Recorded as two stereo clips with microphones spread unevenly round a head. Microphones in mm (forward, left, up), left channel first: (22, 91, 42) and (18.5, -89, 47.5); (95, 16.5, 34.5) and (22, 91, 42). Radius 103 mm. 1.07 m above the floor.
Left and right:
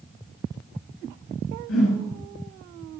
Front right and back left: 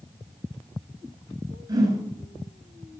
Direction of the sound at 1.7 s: 80° left.